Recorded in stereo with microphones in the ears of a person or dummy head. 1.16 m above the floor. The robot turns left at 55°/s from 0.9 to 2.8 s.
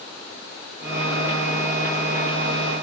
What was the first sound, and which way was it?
Only background noise.